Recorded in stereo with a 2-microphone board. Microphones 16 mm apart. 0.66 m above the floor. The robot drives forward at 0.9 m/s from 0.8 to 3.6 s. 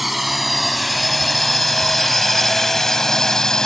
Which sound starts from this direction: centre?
A drone, at 0.0 s.